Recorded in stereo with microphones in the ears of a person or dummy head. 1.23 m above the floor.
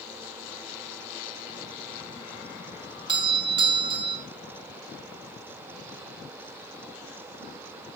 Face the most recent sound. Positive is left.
turn(degrees=-20)  # may be behind; listen again after turning